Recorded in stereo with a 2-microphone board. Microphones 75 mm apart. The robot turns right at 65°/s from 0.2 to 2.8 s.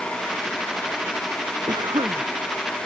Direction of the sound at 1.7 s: 115° right.